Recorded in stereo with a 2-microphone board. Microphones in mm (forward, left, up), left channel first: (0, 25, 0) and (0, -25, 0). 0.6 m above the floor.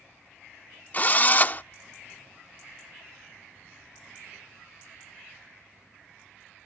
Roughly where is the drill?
Left.